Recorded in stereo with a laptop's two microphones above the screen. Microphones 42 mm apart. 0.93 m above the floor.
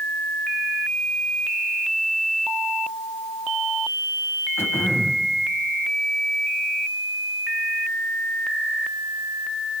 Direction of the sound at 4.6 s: 90° left.